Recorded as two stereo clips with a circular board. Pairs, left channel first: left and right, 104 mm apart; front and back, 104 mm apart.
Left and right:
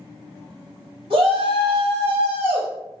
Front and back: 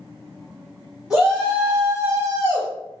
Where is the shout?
100° right, 1.7 m; by 2.7 s 160° right, 1.1 m.